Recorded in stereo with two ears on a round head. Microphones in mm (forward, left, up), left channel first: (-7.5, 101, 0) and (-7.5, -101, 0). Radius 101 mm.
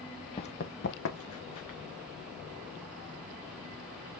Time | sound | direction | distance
0.4 | running footsteps | 20° left (ahead or behind) | 0.9 m